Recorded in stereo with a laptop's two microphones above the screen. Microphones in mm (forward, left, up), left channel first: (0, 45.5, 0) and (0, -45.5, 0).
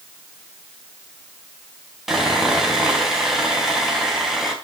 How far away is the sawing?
About 4 m.